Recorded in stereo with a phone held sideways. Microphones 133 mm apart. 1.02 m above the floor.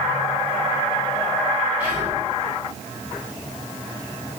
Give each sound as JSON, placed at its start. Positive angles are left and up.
{"t": 1.8, "sound": "whispering", "side_deg": -10, "distance_m": 1.9}